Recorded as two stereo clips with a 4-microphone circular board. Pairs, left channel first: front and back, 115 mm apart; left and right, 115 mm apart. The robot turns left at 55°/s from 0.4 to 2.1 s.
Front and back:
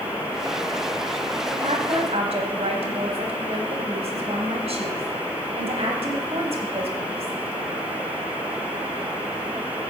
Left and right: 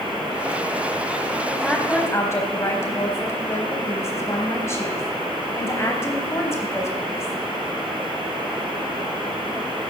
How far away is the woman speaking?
About 3.5 m.